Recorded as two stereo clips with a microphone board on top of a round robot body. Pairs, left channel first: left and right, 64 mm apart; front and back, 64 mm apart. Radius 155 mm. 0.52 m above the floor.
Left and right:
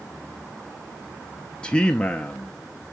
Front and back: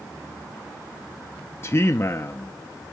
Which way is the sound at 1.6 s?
25° left.